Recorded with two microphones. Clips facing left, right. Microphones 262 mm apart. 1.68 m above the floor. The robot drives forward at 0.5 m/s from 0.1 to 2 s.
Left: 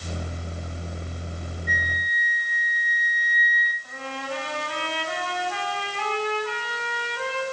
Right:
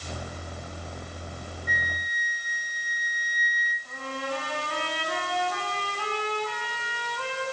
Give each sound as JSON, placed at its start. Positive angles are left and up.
{"t": 1.7, "sound": "a flute", "side_deg": 55, "distance_m": 1.9}
{"t": 3.8, "sound": "a trumpet", "side_deg": 75, "distance_m": 10.0}